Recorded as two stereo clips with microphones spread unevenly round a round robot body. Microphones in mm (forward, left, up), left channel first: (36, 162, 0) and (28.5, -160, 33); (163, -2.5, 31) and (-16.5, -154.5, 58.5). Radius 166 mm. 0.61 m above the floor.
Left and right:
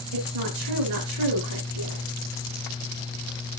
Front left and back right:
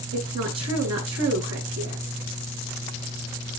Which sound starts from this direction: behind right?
A woman speaking, at 0.1 s.